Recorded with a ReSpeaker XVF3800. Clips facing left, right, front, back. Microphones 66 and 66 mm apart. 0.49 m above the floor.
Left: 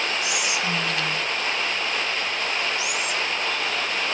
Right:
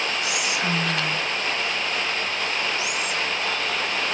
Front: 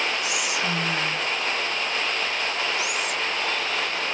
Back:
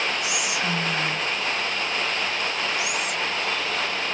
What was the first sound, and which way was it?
Whispering, 95° right.